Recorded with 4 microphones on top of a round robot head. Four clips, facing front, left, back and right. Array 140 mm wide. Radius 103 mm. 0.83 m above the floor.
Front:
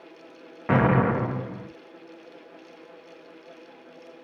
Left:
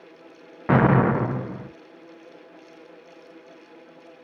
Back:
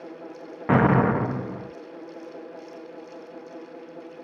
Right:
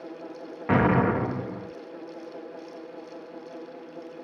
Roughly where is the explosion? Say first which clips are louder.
Left 3 dB, back 2 dB; behind left.